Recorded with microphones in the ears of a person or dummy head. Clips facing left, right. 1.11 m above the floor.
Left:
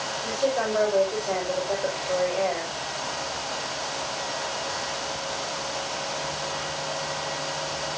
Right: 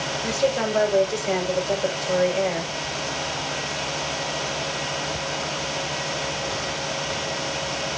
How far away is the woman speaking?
About 5.5 m.